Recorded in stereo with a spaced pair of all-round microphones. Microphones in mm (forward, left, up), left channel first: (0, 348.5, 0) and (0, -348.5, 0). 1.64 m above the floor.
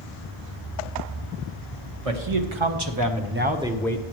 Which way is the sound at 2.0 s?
50° right (ahead or behind).